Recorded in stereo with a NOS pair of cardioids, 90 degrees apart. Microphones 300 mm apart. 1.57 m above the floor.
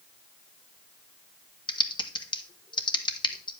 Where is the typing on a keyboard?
15° left, 1.0 m.